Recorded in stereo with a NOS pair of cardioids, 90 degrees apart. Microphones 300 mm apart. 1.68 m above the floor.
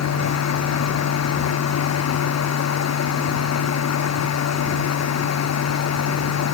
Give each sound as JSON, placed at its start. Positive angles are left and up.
{"t": 0.0, "sound": "a machine running", "azimuth_deg": 60}